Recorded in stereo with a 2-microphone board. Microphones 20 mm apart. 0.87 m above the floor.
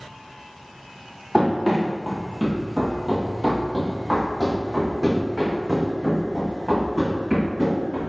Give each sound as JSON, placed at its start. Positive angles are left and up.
{"t": 1.3, "sound": "running footsteps", "side_deg": -15, "distance_m": 1.2}